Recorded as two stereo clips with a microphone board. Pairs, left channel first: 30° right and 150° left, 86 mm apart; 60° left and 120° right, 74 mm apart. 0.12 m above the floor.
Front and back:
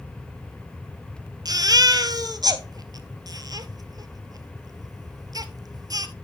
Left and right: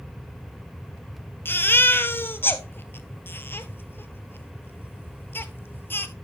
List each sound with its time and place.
1.4 s a baby crying: 115° left, 0.9 m